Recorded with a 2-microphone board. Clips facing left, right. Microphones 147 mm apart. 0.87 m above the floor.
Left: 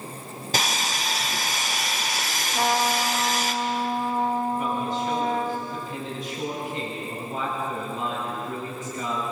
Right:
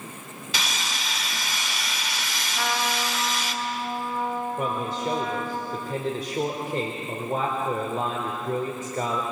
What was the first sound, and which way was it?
Sawing, 50° left (ahead or behind).